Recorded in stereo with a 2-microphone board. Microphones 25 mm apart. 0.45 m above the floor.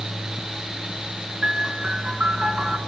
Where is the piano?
45° right (ahead or behind), 4.5 m.